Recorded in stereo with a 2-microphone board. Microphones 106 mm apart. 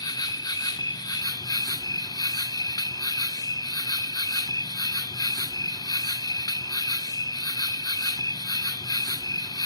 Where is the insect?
35° left (ahead or behind), 0.9 m.